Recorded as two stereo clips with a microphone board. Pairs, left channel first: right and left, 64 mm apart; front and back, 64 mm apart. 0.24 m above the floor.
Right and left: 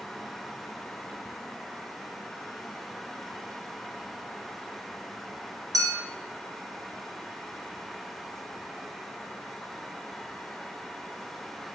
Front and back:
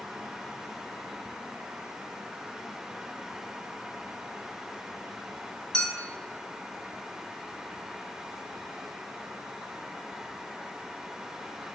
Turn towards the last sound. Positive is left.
turn(degrees=80)